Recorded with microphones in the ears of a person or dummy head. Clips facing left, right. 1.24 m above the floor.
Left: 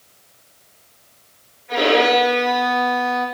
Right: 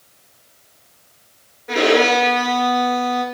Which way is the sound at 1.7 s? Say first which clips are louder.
Right 1 dB; 75° right (ahead or behind).